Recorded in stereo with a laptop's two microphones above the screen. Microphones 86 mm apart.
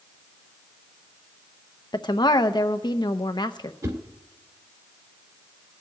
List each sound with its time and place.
1.9 s a woman speaking: 55° left (ahead or behind), 0.7 m
3.8 s a whoosh: 50° right (ahead or behind), 1.8 m